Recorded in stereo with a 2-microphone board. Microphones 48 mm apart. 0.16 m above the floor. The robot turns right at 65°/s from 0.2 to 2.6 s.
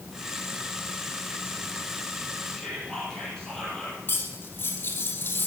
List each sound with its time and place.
2.5 s whispering: 15° left (ahead or behind), 5.5 m; by 4.0 s 10° left (ahead or behind), 5.5 m
4.1 s cutlery clinking: 45° left (ahead or behind), 3 m